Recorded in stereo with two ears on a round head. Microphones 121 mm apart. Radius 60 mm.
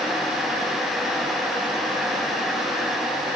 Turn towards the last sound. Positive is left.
No sound to turn to.